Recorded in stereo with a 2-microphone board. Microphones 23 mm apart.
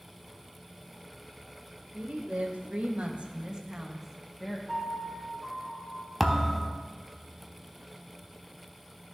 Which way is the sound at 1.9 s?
85° right.